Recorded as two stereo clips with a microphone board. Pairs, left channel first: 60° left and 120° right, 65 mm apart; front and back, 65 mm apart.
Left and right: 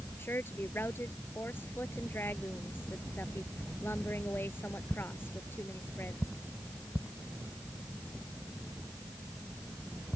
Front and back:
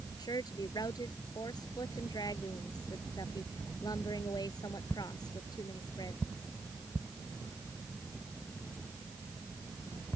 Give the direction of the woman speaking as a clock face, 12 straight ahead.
12 o'clock.